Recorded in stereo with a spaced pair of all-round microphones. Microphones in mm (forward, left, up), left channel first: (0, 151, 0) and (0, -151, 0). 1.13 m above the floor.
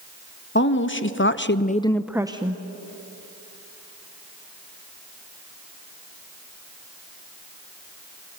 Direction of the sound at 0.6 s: 35° left (ahead or behind).